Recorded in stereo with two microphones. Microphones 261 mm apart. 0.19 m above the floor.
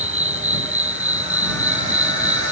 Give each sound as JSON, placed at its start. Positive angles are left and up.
{"t": 0.0, "sound": "an insect", "side_deg": -50}